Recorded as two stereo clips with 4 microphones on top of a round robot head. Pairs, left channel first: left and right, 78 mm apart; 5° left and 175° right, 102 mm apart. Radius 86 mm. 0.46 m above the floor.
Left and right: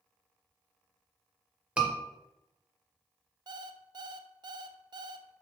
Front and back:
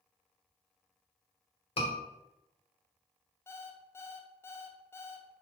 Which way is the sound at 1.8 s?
15° right.